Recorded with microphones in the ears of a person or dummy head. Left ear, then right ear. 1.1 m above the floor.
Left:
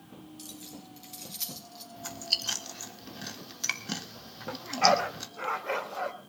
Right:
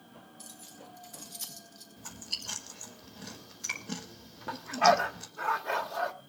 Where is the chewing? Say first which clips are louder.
Left 8 dB; 35° left (ahead or behind), 3.5 m.